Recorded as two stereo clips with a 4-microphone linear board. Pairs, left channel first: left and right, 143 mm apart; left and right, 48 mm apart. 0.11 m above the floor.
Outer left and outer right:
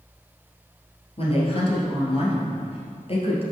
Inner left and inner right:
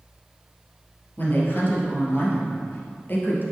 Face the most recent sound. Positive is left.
turn(degrees=45)  # may be behind; listen again after turning